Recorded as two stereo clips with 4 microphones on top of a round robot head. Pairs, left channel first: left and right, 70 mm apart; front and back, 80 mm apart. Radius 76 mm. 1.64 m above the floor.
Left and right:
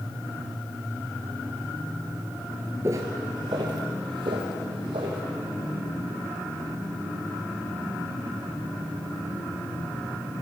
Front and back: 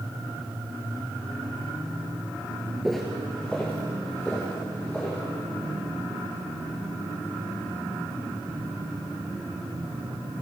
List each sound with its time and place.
2.8 s footsteps: 90° right, 1.7 m; by 5.2 s 80° right, 4.5 m